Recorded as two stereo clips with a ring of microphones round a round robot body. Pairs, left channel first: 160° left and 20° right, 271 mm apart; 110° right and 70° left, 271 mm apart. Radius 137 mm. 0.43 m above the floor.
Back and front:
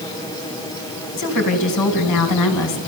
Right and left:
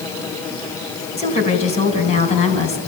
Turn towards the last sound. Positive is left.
turn(degrees=180)